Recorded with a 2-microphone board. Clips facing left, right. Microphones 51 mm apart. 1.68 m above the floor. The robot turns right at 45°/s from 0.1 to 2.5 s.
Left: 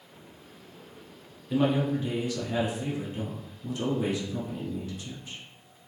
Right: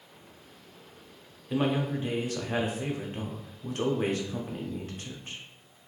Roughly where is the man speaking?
Behind.